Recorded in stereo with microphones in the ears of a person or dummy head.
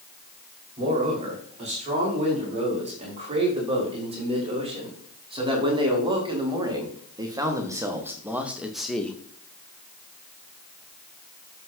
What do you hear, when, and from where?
0.8 s a man speaking: 35° right (ahead or behind), 5 m; by 9.2 s 5° left (ahead or behind), 1.0 m